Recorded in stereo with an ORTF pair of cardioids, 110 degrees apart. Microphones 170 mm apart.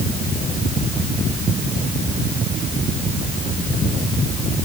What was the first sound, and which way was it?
Only background noise.